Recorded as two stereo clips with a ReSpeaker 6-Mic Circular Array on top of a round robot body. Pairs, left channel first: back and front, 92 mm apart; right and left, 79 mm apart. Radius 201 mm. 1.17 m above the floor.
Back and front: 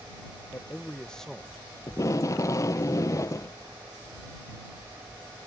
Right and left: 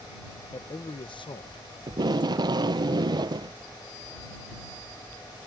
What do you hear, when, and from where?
0.5 s a man speaking: 120° right; by 1.6 s 85° right
1.9 s tape being pulled: 125° left